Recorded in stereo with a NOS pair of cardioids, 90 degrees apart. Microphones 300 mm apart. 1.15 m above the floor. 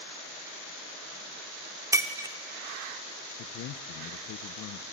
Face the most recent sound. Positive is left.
turn(degrees=65)